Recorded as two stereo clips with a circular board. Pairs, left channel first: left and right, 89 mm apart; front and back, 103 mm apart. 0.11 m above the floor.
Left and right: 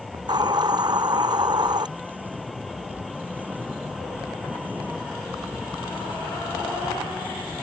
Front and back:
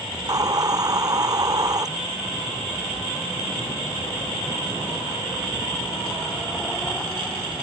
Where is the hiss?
125° right.